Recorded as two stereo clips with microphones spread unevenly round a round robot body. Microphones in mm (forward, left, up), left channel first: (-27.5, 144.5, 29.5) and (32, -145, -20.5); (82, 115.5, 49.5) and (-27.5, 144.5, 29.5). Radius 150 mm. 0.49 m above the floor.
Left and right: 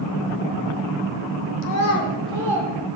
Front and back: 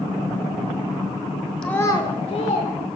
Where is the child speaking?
70° left, 1.3 m; by 2.7 s 5° left, 1.7 m.